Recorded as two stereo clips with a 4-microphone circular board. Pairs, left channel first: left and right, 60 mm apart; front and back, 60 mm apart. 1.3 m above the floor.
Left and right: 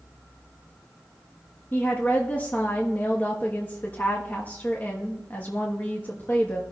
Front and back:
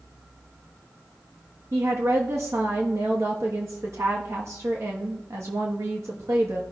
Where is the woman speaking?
145° left, 1.2 m.